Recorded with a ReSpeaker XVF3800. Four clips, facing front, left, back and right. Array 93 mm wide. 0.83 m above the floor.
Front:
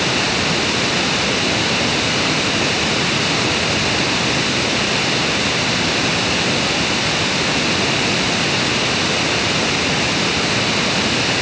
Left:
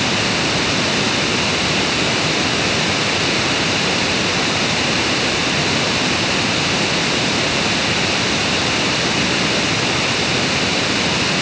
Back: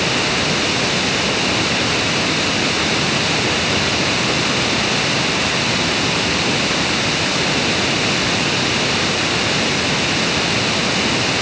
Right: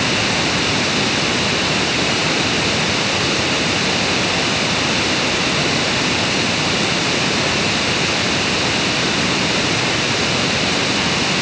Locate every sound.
Only background noise.